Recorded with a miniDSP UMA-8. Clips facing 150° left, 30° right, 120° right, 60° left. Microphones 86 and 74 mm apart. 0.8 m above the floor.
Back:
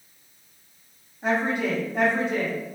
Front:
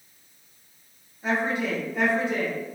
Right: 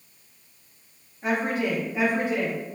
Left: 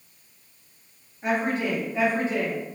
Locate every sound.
1.2 s a woman speaking: 145° left, 1.4 m; by 2.6 s 175° right, 1.0 m